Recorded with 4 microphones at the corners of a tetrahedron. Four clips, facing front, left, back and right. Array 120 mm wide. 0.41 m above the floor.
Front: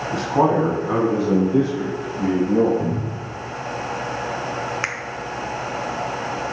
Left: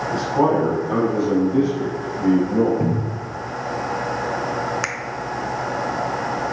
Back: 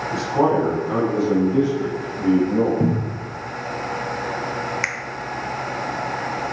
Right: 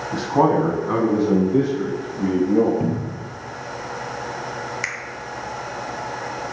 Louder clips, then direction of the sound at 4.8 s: Left 3 dB, even; 60° left.